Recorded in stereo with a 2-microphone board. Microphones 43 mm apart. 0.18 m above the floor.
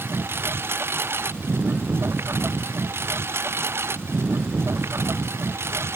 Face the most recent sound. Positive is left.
turn(degrees=-80)